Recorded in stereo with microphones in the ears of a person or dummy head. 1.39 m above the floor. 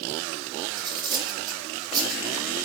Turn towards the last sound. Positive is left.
turn(degrees=-25)  # may be behind; listen again after turning